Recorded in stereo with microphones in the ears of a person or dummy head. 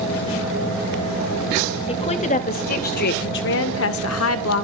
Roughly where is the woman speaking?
Left.